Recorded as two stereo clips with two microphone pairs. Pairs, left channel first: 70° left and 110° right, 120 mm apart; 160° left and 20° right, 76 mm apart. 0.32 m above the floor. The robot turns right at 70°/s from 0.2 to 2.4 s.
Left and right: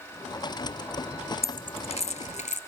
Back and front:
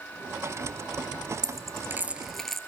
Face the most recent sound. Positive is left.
turn(degrees=75)